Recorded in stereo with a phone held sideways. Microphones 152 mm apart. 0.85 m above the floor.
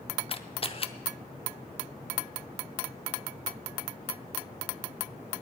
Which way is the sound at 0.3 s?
40° left (ahead or behind).